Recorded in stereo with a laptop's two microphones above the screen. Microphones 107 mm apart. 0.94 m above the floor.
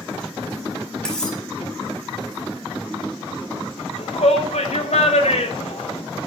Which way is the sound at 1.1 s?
5° left (ahead or behind).